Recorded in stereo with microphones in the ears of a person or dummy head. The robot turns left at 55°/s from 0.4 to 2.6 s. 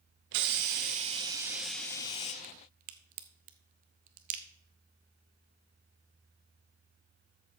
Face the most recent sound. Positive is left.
turn(degrees=-45)  # may be behind; listen again after turning